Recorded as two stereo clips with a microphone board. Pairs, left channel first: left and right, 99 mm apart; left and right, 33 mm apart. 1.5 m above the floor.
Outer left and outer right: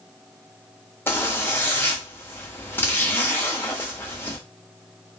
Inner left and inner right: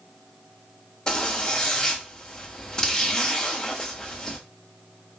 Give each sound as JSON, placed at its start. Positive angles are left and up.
{"t": 1.1, "sound": "a zipper", "side_deg": 20, "distance_m": 1.2}